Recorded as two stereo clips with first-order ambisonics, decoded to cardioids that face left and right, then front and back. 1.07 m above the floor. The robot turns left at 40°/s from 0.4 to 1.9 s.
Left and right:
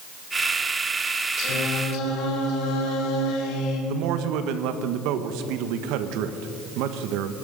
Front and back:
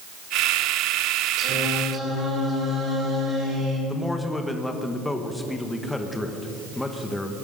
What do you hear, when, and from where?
1.4 s singing: 130° left, 3 m; by 3.8 s 110° left, 3 m
3.9 s a man speaking: 85° right, 1.2 m